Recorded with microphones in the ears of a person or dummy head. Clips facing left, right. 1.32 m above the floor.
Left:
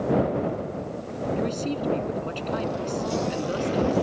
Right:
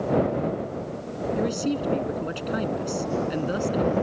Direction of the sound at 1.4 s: 5° right (ahead or behind).